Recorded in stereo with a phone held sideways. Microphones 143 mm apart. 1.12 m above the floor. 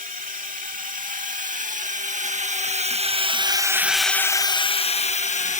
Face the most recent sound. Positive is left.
turn(degrees=55)  # may be behind; listen again after turning